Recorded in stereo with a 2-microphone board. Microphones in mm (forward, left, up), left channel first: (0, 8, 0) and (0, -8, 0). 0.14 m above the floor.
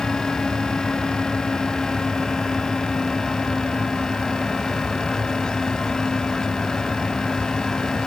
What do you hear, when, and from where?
Only background noise.